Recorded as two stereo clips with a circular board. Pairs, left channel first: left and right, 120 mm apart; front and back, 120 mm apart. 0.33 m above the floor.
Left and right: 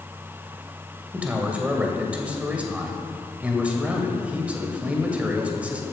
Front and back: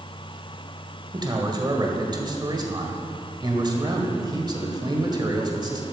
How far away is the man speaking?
About 1.6 m.